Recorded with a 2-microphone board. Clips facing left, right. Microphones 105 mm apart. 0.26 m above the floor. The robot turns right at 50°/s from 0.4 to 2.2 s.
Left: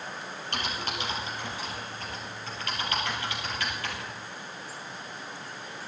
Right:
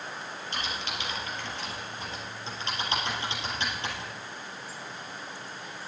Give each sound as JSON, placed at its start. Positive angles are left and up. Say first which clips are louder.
{"t": 0.5, "sound": "typing on a keyboard", "louder": "left 3 dB", "side_deg": 60, "distance_m": 4.0}